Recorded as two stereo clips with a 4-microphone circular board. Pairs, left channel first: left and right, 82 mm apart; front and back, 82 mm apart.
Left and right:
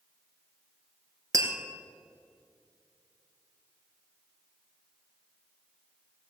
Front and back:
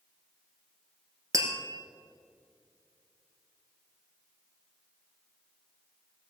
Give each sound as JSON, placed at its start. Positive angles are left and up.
{"t": 1.3, "sound": "tapping", "azimuth_deg": -135, "distance_m": 1.9}